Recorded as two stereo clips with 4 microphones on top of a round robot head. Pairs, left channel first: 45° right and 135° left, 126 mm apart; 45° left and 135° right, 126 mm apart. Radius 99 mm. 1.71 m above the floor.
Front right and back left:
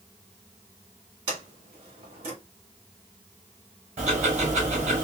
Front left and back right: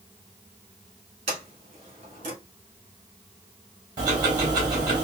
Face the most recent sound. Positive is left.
turn(degrees=170)